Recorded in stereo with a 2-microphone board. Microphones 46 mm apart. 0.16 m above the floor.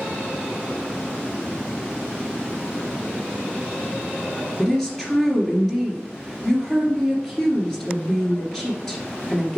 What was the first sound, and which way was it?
A woman speaking, 10° left (ahead or behind).